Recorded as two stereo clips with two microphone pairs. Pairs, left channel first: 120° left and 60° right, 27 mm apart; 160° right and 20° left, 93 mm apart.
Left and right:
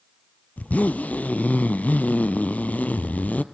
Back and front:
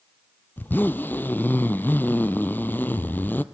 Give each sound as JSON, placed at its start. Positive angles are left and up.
{"t": 0.6, "sound": "a zipper", "azimuth_deg": 135, "distance_m": 0.7}